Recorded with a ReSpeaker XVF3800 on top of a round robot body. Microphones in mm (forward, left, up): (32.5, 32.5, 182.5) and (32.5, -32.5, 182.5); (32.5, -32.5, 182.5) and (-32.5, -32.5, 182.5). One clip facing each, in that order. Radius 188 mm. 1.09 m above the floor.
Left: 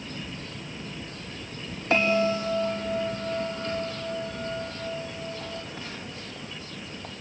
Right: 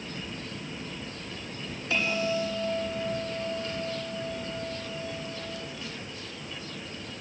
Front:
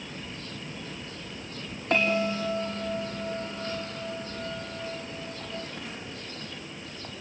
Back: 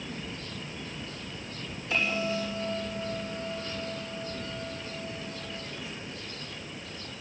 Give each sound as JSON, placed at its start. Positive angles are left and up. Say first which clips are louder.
{"t": 1.9, "sound": "a bell", "louder": "left 6 dB, front 4 dB", "azimuth_deg": 40, "distance_m": 4.0}